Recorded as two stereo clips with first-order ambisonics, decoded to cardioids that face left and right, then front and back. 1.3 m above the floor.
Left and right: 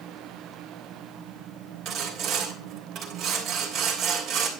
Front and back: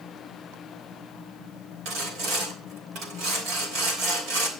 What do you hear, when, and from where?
1.9 s sawing: 145° right, 3 m